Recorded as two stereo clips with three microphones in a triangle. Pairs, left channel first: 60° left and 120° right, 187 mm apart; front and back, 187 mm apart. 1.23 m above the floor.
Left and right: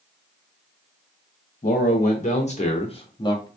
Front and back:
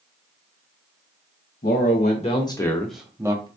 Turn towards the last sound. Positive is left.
turn(degrees=120)